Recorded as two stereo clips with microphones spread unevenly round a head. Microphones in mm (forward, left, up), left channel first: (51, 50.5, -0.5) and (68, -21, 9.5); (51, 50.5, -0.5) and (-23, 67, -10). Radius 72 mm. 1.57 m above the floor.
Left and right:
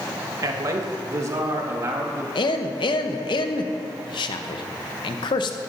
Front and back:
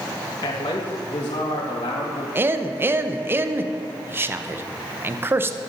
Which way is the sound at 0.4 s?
50° right.